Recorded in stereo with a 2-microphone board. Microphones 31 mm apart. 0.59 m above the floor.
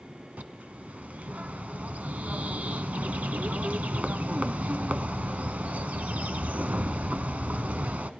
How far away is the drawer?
No drawer in this recording.